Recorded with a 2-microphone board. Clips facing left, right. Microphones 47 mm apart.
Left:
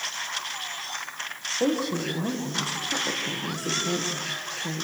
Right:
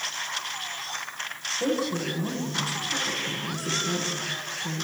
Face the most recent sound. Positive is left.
turn(degrees=75)  # may be behind; listen again after turning